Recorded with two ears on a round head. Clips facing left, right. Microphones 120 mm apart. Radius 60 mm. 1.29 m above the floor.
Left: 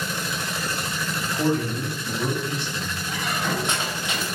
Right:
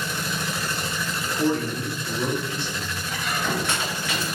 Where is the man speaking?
40° left (ahead or behind), 1.5 m.